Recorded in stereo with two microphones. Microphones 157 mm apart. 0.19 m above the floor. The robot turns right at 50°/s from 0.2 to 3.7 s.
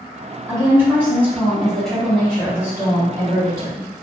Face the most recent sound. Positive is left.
turn(degrees=20)  # may be behind; listen again after turning